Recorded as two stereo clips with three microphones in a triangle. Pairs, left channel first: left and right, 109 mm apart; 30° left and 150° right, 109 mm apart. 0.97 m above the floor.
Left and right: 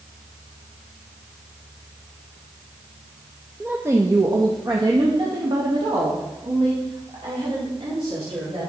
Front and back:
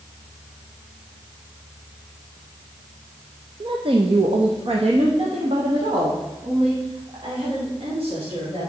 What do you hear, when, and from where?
3.6 s a woman speaking: 160° right, 0.7 m; by 8.7 s 120° right, 3.5 m